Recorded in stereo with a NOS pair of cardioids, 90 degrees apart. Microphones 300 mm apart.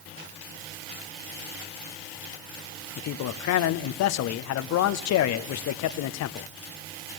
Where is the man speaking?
70° left, 0.7 m.